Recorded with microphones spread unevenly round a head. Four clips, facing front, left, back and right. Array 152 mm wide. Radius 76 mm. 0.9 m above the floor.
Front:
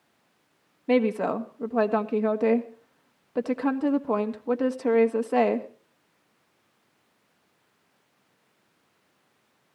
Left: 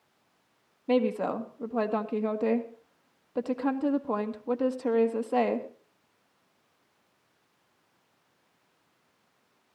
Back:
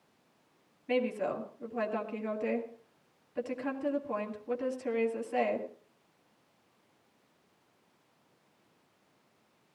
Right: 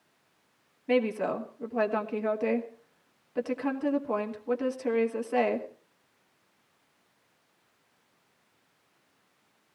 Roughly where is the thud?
No thud in this recording.